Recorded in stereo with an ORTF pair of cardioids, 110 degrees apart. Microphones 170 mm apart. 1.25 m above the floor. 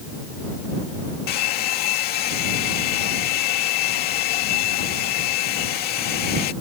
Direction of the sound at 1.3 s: 70° left.